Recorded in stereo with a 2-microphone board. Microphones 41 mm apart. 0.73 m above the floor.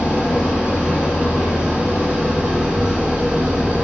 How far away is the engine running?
About 6.5 m.